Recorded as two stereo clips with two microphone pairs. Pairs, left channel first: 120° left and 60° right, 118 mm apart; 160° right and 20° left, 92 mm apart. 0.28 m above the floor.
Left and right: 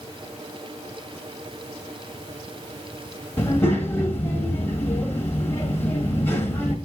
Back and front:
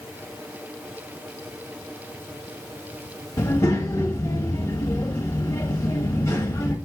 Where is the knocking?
No knocking in this recording.